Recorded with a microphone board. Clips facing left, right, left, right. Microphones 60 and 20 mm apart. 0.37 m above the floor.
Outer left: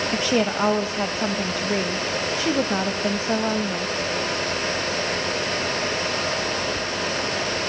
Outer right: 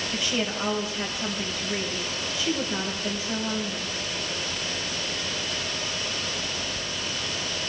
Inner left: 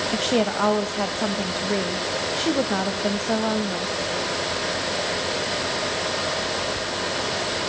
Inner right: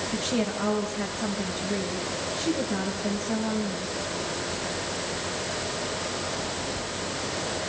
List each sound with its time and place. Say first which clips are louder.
0.1 s a woman speaking: outer left 7 dB, inner left 6 dB; 45° left (ahead or behind), 1.6 m